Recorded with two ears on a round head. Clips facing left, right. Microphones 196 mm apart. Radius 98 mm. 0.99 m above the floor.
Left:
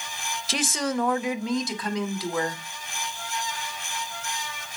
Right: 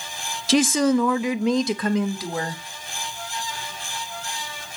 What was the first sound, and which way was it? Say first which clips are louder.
A woman speaking: right 10 dB; 55° right (ahead or behind).